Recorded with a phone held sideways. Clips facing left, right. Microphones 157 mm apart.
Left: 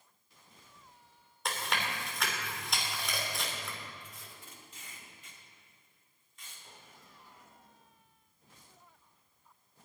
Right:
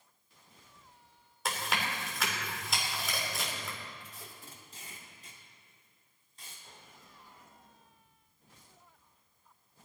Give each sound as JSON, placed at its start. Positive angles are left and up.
{"t": 1.4, "sound": "chewing", "side_deg": 0, "distance_m": 2.5}
{"t": 4.0, "sound": "tape being pulled", "side_deg": -35, "distance_m": 2.5}